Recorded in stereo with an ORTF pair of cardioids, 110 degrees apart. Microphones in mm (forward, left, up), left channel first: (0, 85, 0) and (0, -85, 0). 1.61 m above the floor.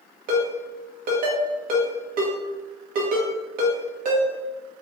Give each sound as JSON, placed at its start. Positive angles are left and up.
{"t": 0.3, "sound": "a ringtone", "azimuth_deg": -60, "distance_m": 1.5}